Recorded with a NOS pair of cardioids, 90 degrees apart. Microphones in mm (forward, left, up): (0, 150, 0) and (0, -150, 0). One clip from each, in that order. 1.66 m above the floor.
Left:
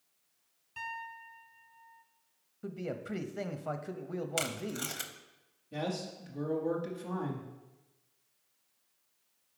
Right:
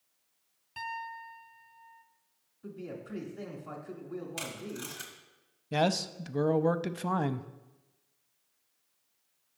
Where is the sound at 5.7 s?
60° right, 0.5 m.